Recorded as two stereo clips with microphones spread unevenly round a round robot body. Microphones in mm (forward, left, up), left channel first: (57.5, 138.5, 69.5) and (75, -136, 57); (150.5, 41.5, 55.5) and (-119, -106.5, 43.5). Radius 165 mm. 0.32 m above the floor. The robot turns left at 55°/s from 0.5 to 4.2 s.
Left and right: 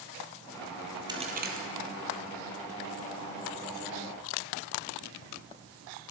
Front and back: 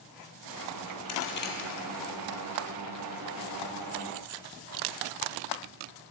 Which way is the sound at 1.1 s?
10° right.